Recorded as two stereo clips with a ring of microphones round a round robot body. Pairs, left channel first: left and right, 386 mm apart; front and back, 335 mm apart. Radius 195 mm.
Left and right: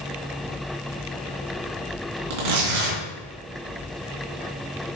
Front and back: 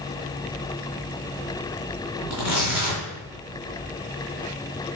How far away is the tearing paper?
About 3 m.